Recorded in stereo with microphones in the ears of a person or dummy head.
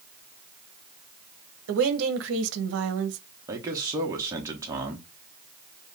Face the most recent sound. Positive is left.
turn(degrees=-20)  # may be behind; listen again after turning